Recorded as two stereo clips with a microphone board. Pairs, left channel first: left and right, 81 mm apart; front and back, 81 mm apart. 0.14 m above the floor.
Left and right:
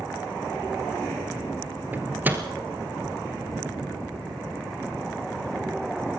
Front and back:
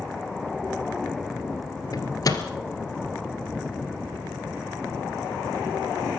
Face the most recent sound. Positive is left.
turn(degrees=-25)